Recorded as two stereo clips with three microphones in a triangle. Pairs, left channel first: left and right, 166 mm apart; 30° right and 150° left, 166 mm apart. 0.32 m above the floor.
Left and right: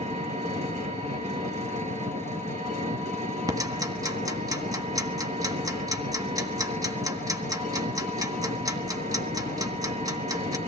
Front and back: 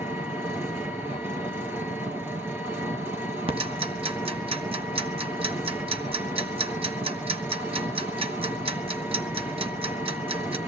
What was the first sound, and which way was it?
An engine running, 135° right.